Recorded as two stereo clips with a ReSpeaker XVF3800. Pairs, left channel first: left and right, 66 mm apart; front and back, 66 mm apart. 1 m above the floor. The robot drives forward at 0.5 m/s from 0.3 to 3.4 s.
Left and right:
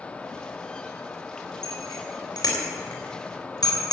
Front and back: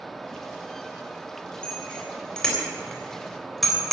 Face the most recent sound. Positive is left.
turn(degrees=90)